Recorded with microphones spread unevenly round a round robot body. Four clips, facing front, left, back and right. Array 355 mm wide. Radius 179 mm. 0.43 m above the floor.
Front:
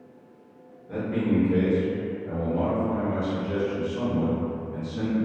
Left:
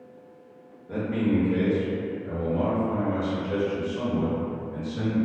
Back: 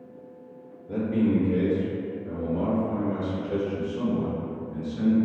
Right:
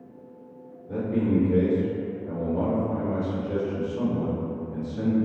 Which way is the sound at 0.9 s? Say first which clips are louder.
Right 1 dB, back 2 dB; 160° right.